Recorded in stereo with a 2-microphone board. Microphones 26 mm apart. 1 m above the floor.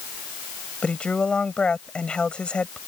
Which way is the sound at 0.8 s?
40° left (ahead or behind).